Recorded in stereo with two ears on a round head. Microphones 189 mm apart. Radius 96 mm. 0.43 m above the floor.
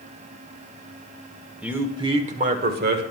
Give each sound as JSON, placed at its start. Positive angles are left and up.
{"t": 1.6, "sound": "a man speaking", "side_deg": -5, "distance_m": 1.2}